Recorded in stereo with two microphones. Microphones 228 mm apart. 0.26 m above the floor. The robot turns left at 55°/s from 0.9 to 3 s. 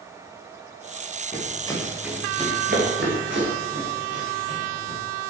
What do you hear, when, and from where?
1.3 s running footsteps: 35° left (ahead or behind), 6.5 m; by 5.0 s 50° right (ahead or behind), 9 m